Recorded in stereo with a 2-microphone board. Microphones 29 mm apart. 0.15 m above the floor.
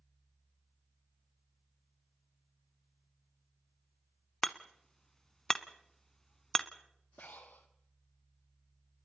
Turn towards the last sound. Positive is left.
turn(degrees=85)